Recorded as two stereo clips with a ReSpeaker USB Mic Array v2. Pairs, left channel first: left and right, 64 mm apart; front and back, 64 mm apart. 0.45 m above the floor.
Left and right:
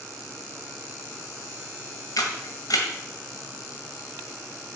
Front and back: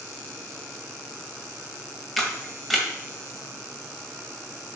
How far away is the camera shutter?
About 1.8 m.